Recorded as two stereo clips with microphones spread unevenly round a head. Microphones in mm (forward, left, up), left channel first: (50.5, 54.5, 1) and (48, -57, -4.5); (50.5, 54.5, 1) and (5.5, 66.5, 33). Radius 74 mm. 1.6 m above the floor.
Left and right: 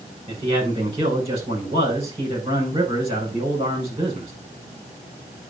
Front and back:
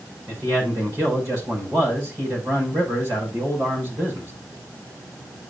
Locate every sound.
0.3 s a man speaking: 150° right, 6 m